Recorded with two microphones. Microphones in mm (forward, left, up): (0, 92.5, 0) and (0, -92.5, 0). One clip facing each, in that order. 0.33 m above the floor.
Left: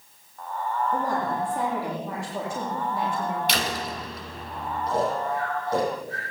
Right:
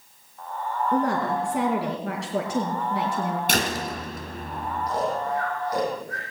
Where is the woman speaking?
80° right, 5 m.